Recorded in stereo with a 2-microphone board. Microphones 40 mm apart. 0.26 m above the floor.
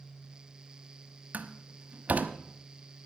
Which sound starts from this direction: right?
A door slam, at 1.3 s.